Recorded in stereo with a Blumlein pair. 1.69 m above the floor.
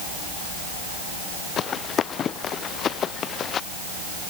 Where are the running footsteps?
25° left.